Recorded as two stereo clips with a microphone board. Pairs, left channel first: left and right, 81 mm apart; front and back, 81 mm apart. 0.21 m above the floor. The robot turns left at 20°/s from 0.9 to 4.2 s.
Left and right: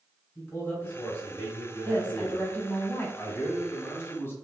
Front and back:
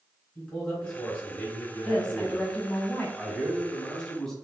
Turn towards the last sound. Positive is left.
turn(degrees=75)